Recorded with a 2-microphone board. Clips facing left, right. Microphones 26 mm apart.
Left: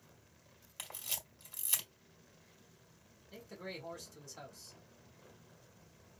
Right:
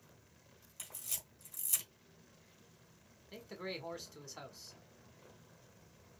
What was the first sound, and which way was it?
A camera shutter, 55° left (ahead or behind).